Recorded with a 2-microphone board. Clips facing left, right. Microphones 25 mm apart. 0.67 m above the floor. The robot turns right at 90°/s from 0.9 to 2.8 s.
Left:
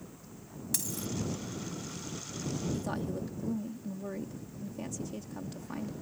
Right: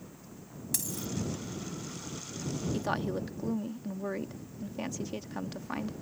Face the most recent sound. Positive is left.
turn(degrees=-40)  # may be behind; listen again after turning